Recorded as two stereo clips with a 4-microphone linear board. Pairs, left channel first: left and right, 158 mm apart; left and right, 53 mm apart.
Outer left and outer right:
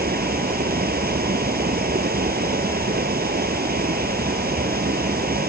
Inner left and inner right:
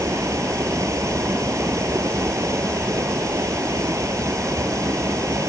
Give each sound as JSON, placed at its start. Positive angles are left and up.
{"t": 0.0, "sound": "running water", "side_deg": -75}